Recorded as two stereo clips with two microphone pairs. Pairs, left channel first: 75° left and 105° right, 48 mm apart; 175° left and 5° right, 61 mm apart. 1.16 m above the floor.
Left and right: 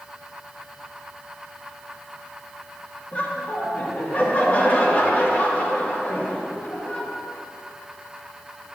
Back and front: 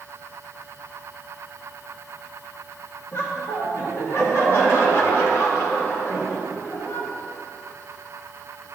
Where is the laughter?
130° left, 1.5 m.